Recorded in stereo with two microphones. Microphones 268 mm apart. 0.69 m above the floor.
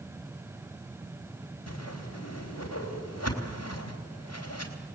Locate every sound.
1.7 s a whoosh: 70° left (ahead or behind), 3.5 m